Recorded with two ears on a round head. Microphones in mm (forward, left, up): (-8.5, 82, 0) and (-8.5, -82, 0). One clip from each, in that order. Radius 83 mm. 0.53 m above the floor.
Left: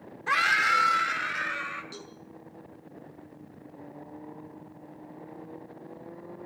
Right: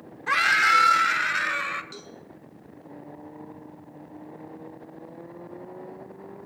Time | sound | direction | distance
0.3 | a scream | centre (ahead or behind) | 1.2 m
1.9 | a cowbell | 5° right (ahead or behind) | 5.5 m